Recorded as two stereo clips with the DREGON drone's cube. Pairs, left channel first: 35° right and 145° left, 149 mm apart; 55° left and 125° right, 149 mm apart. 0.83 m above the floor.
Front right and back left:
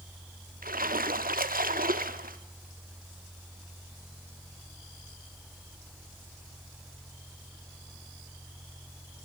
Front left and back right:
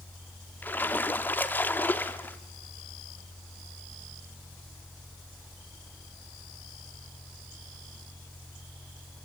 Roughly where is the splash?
Behind left.